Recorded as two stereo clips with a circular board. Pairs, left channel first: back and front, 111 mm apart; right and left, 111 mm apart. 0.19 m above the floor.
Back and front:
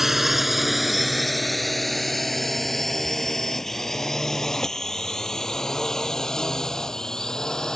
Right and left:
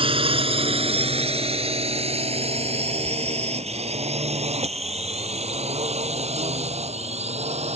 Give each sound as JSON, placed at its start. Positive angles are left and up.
{"t": 0.0, "sound": "a drone", "azimuth_deg": 85}